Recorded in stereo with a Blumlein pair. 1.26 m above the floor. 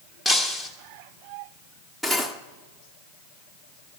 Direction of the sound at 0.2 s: 5° right.